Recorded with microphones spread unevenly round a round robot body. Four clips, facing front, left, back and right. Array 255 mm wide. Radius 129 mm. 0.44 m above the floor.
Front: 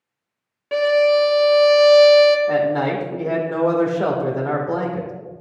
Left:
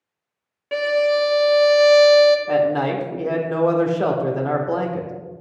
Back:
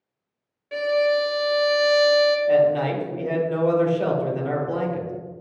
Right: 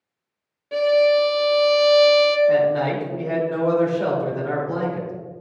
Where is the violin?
25° left, 1.0 m.